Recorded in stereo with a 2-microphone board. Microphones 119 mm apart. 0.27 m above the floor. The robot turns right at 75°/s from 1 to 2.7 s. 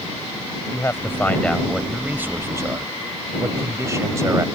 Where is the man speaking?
20° left (ahead or behind); by 4.6 s 25° right (ahead or behind).